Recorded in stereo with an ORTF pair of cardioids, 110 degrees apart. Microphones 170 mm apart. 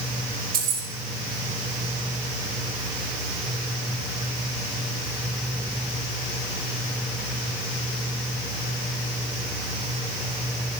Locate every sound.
0.5 s keys jangling: 65° right, 1.4 m